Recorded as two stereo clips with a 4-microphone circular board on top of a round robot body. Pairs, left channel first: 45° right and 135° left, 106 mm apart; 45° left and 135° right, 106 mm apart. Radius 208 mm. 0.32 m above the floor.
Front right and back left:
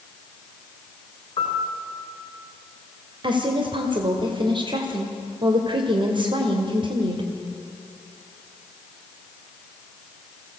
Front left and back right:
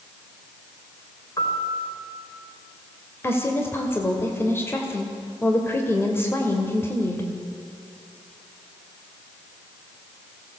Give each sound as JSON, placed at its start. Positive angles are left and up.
{"t": 1.4, "sound": "a piano", "azimuth_deg": -10, "distance_m": 3.0}
{"t": 3.2, "sound": "a woman speaking", "azimuth_deg": 110, "distance_m": 2.0}